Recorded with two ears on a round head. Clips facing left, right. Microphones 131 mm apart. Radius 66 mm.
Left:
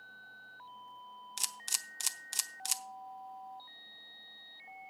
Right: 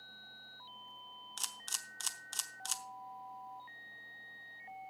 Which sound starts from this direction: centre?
A camera shutter, at 1.4 s.